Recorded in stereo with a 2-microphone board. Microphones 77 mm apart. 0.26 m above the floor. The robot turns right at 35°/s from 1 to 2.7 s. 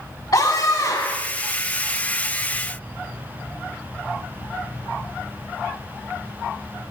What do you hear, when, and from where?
0.3 s a scream: 55° left (ahead or behind), 2.5 m